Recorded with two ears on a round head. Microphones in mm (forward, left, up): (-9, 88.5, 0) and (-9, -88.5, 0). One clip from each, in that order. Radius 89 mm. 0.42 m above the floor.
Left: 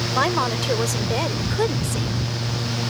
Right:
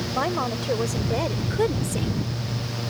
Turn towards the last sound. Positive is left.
turn(degrees=0)  # may be behind; listen again after turning